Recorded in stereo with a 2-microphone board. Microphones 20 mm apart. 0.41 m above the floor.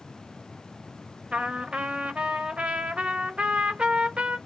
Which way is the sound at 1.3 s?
65° right (ahead or behind).